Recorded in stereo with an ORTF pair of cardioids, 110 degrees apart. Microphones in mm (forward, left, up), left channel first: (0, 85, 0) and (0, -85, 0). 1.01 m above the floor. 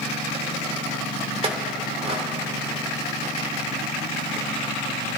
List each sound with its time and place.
1.4 s a clink: 30° right, 2 m